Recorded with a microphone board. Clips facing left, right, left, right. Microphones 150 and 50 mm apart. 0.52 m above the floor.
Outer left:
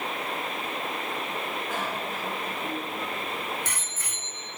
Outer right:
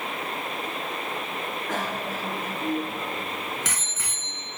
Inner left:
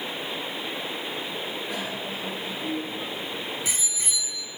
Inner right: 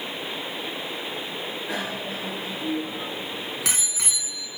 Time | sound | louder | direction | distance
1.7 | a bicycle bell | outer right 2 dB, inner right 2 dB | 85° right | 5.5 m